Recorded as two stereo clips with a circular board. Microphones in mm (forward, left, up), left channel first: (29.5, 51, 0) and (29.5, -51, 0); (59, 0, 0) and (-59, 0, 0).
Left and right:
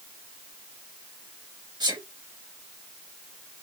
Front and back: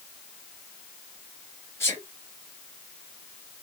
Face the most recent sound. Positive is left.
turn(degrees=-65)